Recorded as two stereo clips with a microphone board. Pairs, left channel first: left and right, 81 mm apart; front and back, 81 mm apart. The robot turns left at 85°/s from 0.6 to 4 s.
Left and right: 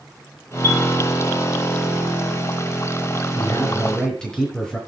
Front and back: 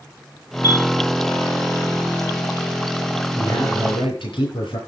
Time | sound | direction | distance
0.6 | a chime | 35° right | 3.5 m
3.4 | a man speaking | 65° left | 8.5 m